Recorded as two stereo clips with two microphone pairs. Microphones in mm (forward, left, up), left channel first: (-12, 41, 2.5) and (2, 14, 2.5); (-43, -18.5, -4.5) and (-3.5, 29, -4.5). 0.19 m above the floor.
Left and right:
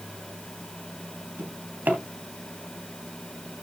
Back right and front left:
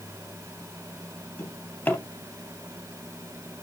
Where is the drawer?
75° right, 2.5 m.